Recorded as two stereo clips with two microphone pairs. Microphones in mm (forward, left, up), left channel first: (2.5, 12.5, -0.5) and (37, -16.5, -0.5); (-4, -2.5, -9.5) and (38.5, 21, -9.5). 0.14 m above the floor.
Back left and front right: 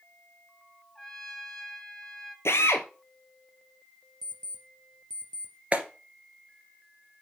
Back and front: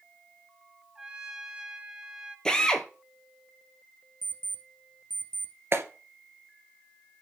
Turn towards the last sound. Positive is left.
turn(degrees=15)